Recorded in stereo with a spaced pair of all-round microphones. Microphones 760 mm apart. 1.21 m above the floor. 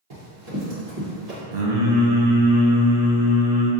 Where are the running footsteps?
55° right (ahead or behind), 2.0 m.